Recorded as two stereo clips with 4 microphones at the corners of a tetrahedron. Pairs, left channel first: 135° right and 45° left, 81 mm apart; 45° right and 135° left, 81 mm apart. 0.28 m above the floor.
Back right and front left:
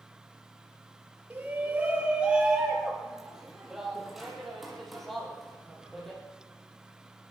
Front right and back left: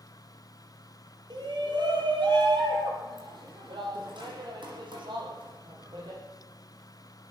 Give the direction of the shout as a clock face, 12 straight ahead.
8 o'clock.